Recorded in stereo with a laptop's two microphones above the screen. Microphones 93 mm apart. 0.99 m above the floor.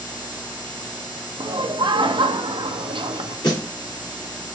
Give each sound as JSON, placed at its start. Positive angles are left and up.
{"t": 1.4, "sound": "laughter", "side_deg": -60, "distance_m": 0.8}
{"t": 3.4, "sound": "a snare drum", "side_deg": 50, "distance_m": 1.7}